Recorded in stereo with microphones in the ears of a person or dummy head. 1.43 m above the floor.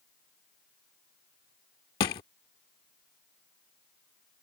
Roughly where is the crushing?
Left.